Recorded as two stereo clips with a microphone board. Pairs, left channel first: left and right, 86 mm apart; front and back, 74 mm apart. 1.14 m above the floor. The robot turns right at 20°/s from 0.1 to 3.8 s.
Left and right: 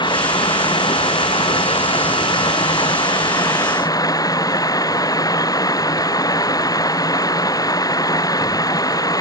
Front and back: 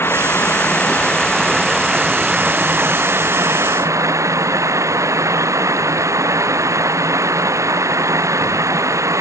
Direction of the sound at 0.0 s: 60° left.